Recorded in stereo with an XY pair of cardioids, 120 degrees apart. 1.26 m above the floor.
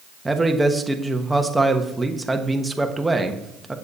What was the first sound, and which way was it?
A man speaking, 10° right.